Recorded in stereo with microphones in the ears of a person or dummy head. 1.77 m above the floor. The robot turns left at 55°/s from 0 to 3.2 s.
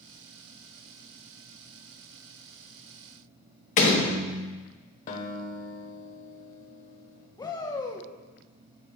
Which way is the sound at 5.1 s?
40° left (ahead or behind).